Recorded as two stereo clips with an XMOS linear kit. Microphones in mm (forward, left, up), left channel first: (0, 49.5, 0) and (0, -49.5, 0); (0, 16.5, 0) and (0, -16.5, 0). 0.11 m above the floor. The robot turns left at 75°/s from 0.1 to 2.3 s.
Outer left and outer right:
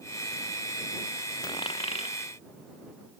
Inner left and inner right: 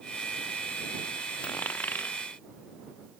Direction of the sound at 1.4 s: 40° left (ahead or behind).